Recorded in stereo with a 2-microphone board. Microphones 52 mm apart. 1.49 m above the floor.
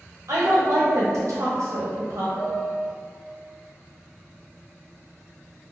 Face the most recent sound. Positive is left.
turn(degrees=75)  # may be behind; listen again after turning